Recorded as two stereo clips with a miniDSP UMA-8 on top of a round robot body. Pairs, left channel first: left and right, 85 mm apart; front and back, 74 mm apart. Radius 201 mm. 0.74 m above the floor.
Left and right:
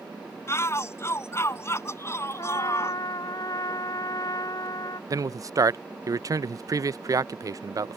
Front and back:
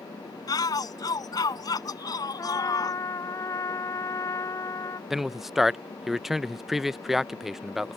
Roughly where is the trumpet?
Ahead left.